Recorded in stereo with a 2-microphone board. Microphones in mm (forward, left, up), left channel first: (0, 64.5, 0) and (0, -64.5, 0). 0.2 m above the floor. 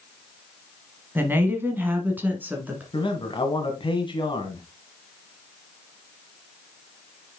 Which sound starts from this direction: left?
A man speaking, at 2.9 s.